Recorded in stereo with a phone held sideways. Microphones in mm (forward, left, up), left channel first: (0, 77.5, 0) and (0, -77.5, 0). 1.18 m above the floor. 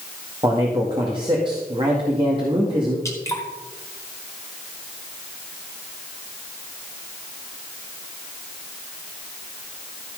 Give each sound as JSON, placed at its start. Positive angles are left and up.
{"t": 0.4, "sound": "a man speaking", "side_deg": -30, "distance_m": 2.0}
{"t": 3.0, "sound": "dripping", "side_deg": 20, "distance_m": 2.5}